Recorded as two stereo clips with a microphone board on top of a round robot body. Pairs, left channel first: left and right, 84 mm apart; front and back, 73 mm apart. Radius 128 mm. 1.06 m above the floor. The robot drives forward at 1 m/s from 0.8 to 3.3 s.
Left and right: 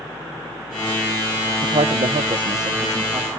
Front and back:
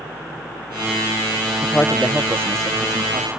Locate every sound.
1.6 s a man speaking: 60° right, 0.8 m; by 3.3 s 155° right, 1.4 m